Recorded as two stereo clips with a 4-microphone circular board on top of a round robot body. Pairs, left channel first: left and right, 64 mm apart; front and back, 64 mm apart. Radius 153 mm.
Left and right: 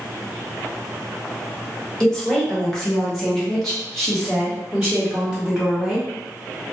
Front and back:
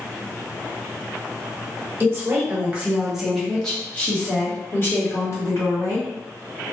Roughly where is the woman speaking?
Behind.